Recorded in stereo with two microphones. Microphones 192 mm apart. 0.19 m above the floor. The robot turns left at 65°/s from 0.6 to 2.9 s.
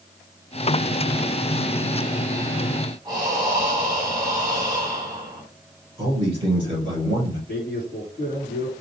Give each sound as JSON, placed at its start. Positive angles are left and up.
{"t": 3.0, "sound": "breathing", "side_deg": -20, "distance_m": 1.7}
{"t": 6.0, "sound": "a man speaking", "side_deg": -30, "distance_m": 2.5}
{"t": 7.5, "sound": "a man speaking", "side_deg": -40, "distance_m": 2.5}